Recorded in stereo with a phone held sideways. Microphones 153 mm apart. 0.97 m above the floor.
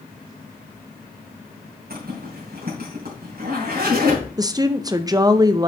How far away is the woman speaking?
About 0.6 m.